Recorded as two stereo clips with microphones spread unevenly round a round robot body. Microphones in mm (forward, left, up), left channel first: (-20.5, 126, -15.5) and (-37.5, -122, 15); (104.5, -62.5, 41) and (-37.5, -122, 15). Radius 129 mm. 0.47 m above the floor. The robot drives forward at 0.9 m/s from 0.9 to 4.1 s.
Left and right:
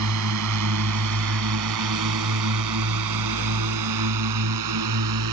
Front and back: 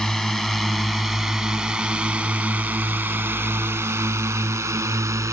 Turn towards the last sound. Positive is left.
turn(degrees=-85)